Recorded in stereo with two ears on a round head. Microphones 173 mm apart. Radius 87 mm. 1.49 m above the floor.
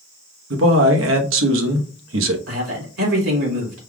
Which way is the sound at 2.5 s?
85° right.